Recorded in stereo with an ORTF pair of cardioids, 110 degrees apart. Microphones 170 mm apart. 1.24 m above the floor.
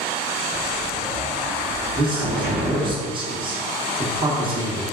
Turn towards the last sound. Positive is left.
turn(degrees=-30)